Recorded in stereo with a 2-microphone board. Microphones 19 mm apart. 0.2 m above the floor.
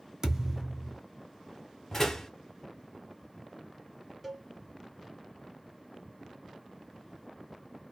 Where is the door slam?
25° left (ahead or behind), 1.1 m.